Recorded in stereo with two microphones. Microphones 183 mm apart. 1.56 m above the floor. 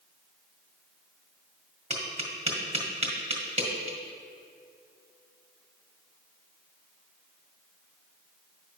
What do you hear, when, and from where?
1.9 s tapping: 35° right (ahead or behind), 1.3 m